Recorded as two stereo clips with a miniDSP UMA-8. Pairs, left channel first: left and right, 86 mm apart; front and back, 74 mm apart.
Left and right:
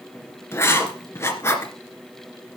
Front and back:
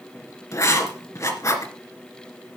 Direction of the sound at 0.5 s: 35° left.